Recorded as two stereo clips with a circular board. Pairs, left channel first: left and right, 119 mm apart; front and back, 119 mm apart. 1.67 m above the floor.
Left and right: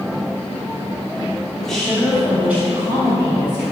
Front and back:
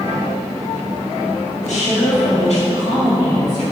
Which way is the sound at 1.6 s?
5° left.